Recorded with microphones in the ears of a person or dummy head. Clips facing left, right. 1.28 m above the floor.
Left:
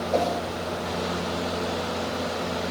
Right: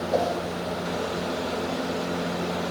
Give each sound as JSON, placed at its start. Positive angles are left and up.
{"t": 0.1, "sound": "a whoosh", "side_deg": -5, "distance_m": 2.0}